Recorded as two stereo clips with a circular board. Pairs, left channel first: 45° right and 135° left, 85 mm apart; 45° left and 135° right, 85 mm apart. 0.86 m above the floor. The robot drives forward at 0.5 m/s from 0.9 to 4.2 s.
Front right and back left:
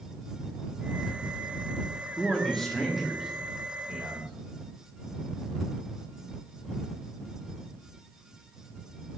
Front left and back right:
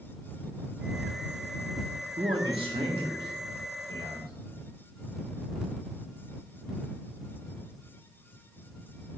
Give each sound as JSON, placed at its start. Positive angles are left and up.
{"t": 2.2, "sound": "a man speaking", "azimuth_deg": -125, "distance_m": 1.2}